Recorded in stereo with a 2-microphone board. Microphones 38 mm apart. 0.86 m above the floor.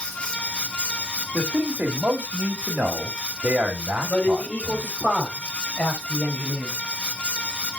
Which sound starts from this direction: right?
A man speaking, at 1.3 s.